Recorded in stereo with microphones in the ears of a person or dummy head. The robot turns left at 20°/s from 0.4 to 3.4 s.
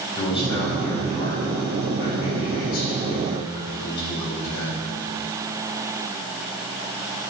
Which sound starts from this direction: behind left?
A man speaking, at 0.1 s.